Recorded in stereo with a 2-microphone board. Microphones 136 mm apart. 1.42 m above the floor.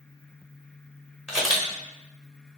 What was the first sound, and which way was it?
A camera shutter, 5° right (ahead or behind).